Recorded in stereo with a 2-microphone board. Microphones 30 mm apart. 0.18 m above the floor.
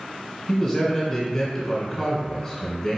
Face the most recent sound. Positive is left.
turn(degrees=10)  # may be behind; listen again after turning